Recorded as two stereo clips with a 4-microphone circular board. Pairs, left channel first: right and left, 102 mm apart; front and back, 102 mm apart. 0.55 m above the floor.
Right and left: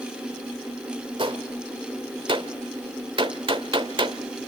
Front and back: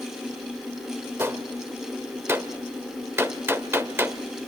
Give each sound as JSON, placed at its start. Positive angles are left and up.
{"t": 1.2, "sound": "a gunshot", "azimuth_deg": 115, "distance_m": 1.4}